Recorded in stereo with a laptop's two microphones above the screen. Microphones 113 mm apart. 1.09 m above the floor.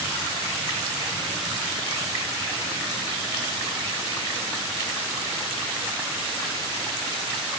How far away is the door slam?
I don't hear a door slam.